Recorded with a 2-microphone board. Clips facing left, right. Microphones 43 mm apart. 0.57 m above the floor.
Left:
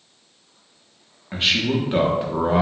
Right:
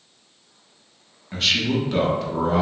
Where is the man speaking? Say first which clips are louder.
Left 1 dB; 20° left (ahead or behind), 0.6 m.